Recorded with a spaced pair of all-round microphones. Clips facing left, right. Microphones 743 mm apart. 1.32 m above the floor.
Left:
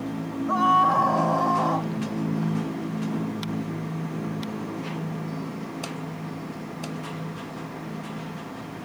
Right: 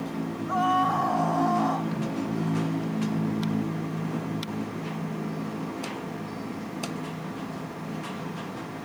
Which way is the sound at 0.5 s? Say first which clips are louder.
Left 1 dB; 80° left.